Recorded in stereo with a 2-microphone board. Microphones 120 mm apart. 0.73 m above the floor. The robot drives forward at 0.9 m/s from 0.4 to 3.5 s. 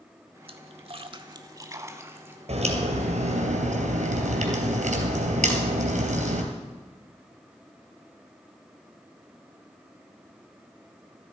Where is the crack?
60° right (ahead or behind), 3 m; by 6.4 s 75° right (ahead or behind), 3 m.